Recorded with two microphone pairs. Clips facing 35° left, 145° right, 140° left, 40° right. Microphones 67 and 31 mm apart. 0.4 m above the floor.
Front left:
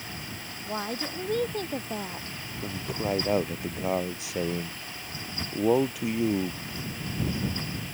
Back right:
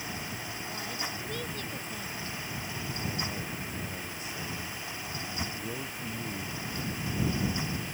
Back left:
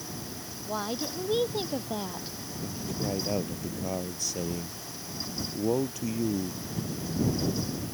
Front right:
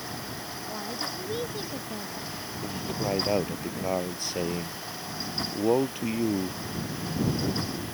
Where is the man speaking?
15° left.